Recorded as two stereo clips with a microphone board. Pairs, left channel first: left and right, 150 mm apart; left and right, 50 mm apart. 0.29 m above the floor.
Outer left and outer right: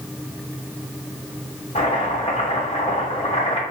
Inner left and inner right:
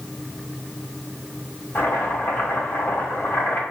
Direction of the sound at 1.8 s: 45° left (ahead or behind).